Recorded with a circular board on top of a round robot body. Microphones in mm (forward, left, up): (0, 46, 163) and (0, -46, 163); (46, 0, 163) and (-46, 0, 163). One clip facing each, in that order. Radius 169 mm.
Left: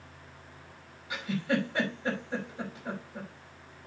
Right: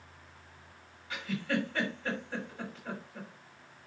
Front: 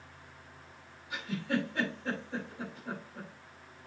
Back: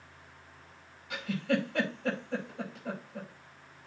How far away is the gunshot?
No gunshot in this recording.